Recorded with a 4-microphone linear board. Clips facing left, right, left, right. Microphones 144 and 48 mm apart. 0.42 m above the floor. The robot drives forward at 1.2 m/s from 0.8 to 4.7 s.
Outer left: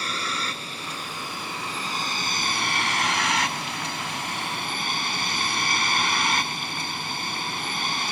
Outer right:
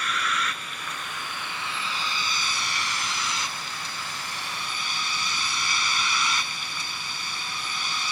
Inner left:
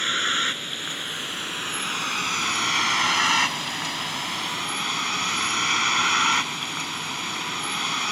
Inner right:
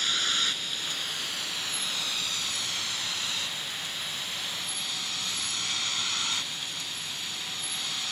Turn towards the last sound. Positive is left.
turn(degrees=55)  # may be behind; listen again after turning